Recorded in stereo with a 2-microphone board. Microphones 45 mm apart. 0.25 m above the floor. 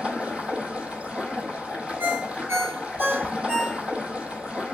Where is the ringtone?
75° right (ahead or behind), 3 m.